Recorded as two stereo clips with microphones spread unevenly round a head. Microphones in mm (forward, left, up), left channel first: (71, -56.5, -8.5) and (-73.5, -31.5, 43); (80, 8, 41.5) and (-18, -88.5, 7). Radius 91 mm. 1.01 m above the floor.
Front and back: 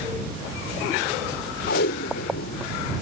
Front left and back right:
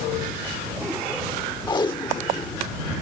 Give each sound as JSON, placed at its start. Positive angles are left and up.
{"t": 1.7, "sound": "tape being pulled", "azimuth_deg": -15}